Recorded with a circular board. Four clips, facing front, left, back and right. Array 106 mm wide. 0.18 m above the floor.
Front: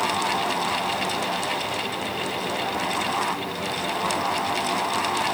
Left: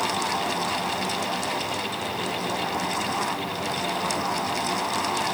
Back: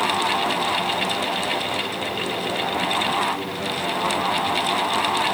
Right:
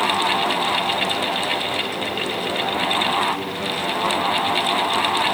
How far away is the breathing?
I don't hear breathing.